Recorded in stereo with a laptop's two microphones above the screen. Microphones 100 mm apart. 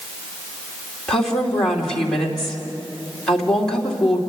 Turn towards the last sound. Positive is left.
turn(degrees=5)  # may be behind; listen again after turning